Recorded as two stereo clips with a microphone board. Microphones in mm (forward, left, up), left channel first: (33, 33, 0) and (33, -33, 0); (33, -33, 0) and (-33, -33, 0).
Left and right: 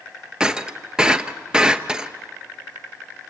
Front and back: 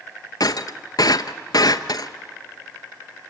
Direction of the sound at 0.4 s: 10° right.